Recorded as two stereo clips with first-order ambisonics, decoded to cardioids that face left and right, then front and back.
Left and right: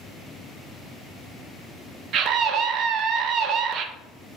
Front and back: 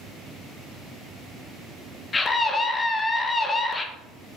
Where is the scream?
70° right, 0.5 m.